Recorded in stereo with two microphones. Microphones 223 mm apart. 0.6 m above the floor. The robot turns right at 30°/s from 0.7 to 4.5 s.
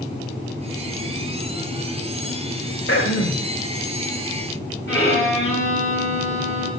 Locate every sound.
2.9 s throat clearing: 75° left (ahead or behind), 0.9 m; by 3.5 s 85° left, 0.9 m
4.9 s a violin: 65° left (ahead or behind), 3.5 m